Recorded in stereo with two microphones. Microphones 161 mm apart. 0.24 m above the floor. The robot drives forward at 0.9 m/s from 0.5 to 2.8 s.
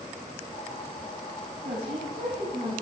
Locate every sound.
1.6 s a woman speaking: 45° right (ahead or behind), 2 m; by 2.7 s 35° right (ahead or behind), 2.5 m